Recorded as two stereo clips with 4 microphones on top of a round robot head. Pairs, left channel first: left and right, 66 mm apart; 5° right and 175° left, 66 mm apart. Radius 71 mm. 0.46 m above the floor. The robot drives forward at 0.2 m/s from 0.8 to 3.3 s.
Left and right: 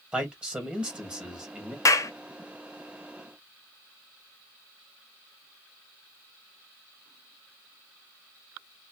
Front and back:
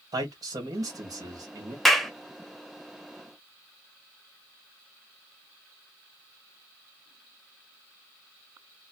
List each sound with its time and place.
0.1 s a man speaking: 165° right, 1.8 m
1.9 s a clap: 80° left, 0.8 m; by 2.1 s 85° left, 0.8 m